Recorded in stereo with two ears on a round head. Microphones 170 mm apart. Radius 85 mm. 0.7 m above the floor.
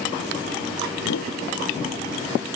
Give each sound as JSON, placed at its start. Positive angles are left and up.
{"t": 1.0, "sound": "a whoosh", "side_deg": 75}